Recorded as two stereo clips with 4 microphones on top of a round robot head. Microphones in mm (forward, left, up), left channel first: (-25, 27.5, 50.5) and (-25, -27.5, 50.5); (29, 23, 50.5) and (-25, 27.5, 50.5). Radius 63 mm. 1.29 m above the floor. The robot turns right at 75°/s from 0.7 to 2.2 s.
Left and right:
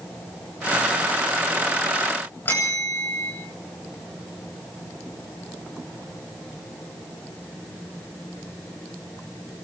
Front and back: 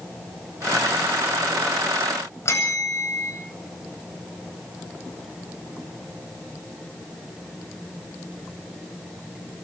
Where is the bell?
30° left, 9 m.